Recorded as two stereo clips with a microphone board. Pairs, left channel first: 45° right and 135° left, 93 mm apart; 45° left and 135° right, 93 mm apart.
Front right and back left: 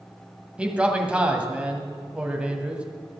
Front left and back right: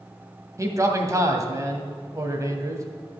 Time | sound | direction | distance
0.6 | a man speaking | 155° right | 1.6 m